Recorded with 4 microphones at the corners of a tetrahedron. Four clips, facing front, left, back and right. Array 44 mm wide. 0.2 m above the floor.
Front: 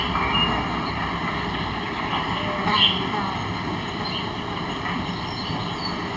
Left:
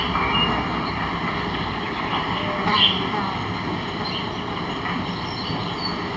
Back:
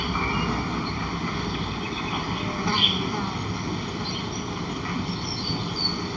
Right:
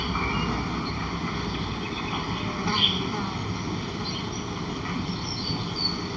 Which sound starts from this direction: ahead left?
An insect, at 0.0 s.